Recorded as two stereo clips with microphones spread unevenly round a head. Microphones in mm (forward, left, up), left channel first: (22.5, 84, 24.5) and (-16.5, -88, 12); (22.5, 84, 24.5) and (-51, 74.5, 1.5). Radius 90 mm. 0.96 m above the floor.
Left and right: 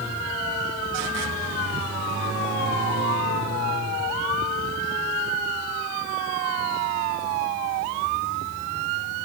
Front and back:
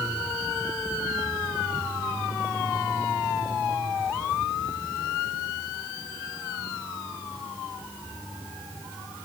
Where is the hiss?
I don't hear a hiss.